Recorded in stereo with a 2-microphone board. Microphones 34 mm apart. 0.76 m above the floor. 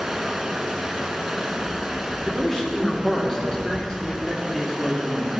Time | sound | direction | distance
0.0 | running water | 15° right (ahead or behind) | 1.2 m
2.2 | a man speaking | 10° left (ahead or behind) | 2.5 m